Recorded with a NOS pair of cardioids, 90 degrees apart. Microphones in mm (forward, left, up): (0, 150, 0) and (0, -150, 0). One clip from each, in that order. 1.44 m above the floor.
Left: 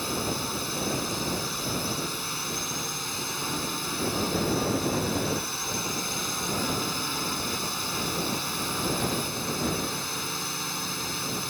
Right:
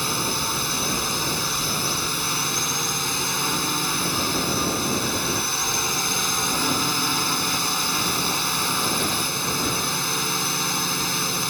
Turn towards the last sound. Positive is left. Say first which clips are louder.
# right 6 dB
turn(degrees=-55)